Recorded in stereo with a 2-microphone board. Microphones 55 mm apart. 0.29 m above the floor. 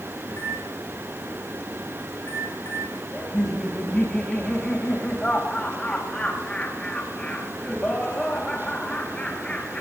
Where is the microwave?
65° left (ahead or behind), 8 m.